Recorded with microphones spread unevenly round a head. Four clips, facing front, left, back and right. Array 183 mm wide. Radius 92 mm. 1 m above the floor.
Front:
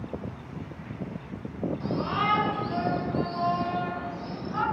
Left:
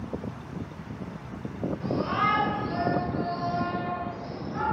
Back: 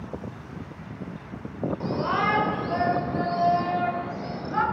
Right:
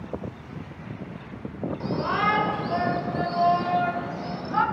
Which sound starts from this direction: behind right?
A shout, at 1.8 s.